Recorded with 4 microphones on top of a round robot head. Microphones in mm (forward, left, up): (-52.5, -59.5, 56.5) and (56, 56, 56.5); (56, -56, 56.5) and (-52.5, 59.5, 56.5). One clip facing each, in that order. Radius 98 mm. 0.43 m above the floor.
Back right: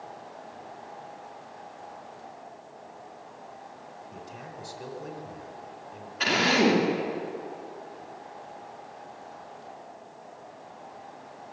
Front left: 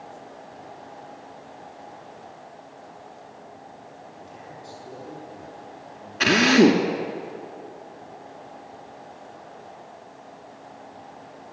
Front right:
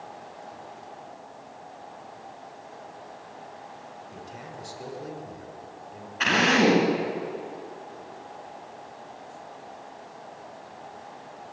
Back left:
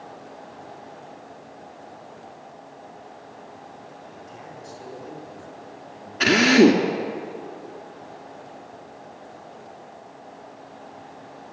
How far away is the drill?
About 3 m.